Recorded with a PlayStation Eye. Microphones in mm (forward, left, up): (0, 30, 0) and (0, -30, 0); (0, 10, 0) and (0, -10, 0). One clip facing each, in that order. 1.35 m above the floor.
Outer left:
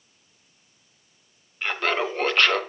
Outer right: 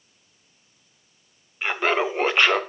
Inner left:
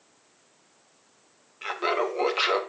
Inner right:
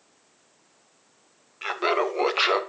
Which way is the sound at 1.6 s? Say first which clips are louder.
Outer right 2 dB, inner right 2 dB; 15° right (ahead or behind).